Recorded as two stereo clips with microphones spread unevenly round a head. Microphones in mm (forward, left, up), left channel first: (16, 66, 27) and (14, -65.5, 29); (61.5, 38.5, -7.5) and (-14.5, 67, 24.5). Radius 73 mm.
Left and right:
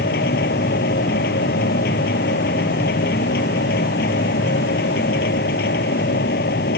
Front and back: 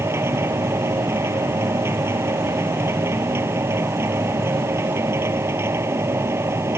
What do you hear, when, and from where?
0.0 s a machine running: 105° left